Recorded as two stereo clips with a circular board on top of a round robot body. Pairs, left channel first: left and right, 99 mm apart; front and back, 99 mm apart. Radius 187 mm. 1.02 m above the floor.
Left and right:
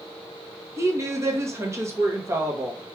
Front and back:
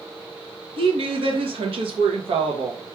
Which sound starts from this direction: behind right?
A woman speaking, at 0.8 s.